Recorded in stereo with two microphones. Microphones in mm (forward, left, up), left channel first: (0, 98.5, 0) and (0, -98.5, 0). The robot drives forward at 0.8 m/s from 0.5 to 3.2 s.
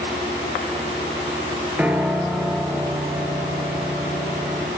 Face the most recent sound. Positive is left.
turn(degrees=-5)  # may be behind; listen again after turning